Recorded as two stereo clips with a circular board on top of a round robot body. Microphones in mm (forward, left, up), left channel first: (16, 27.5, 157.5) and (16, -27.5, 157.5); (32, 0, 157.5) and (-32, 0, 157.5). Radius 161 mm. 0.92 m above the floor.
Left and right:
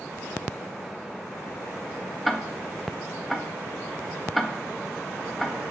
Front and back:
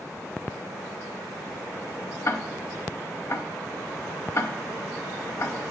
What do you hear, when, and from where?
2.2 s ticking: straight ahead, 0.8 m